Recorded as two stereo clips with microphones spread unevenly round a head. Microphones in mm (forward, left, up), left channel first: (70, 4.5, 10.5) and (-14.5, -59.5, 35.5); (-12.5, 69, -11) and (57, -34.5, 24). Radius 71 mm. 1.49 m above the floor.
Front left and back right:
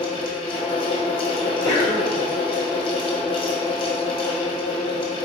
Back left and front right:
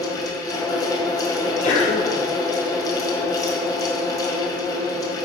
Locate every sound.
0.0 s a fan: 75° left, 1.5 m
1.4 s a sneeze: 105° left, 1.9 m